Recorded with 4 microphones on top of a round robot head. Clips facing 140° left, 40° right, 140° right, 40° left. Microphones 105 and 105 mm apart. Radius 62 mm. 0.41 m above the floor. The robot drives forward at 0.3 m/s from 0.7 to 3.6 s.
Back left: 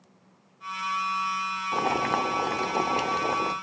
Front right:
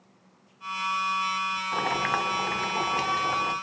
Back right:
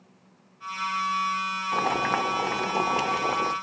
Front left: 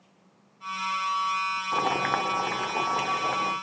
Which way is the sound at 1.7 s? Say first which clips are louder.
Back left 3 dB, back right 1 dB; 125° left.